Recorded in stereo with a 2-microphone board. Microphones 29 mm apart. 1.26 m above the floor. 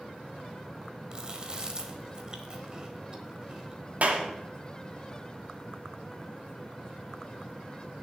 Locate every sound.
1.1 s chewing: 30° right (ahead or behind), 1.5 m
4.0 s a clap: 65° right (ahead or behind), 1.8 m